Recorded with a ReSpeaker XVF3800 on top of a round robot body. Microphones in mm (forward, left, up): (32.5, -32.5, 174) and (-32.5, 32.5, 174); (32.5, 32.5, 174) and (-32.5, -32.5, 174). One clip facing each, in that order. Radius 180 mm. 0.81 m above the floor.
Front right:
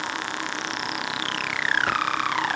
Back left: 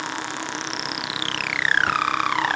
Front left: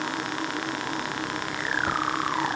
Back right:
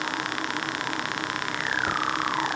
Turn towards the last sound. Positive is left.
No sound to turn to.